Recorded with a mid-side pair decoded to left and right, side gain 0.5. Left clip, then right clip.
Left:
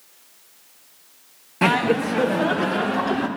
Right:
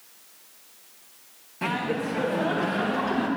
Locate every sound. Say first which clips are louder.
1.6 s laughter: left 8 dB; 60° left, 0.7 m; by 3.3 s 35° left, 2 m